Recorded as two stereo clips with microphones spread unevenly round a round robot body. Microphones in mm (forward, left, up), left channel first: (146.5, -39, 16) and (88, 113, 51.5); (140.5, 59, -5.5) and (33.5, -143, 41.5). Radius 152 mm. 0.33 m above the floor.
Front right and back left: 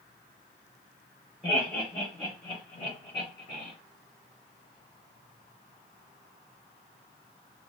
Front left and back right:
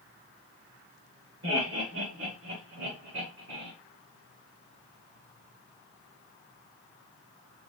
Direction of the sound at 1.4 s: 150° right.